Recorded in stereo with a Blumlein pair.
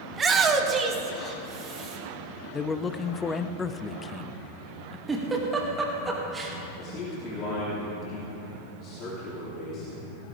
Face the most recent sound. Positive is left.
turn(degrees=35)